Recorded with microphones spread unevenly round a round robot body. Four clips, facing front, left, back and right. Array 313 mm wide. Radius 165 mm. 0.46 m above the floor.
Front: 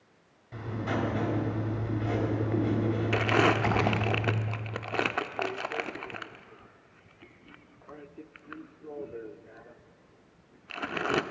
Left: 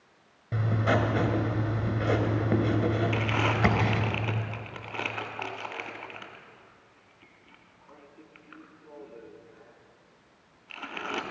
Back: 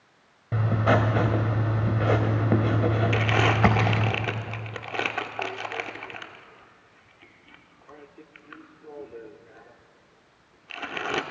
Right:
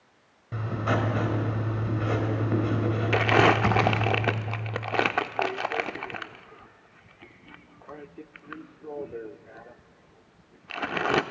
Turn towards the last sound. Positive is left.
turn(degrees=-80)